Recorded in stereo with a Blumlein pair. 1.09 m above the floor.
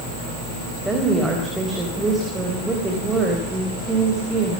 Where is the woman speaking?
10° right, 4.5 m.